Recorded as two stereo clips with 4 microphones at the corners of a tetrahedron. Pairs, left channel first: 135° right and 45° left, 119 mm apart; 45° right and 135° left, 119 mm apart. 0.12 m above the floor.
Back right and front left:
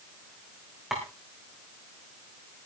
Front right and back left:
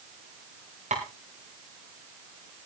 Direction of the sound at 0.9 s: 130° left.